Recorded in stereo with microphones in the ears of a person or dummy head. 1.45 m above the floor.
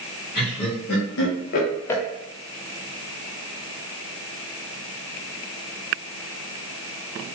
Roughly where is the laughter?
Left.